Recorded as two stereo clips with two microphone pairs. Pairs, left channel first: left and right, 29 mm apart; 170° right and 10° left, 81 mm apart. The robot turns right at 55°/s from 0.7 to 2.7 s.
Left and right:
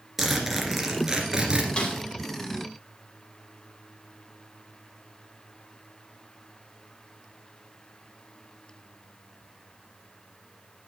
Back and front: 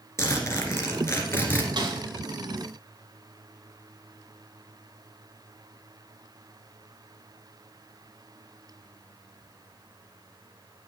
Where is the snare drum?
35° left, 2.5 m; by 2.0 s 50° left, 2.5 m.